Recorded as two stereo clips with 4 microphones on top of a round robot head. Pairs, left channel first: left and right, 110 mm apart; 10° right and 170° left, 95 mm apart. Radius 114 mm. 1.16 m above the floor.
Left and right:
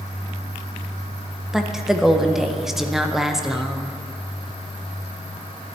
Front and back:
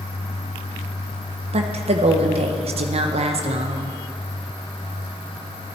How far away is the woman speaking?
About 0.8 m.